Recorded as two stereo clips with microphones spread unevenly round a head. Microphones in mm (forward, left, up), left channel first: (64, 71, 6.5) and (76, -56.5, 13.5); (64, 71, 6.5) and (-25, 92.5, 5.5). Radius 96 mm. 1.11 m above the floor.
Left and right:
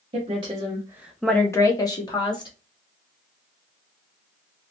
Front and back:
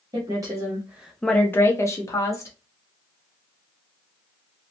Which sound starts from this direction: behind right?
A woman speaking, at 0.1 s.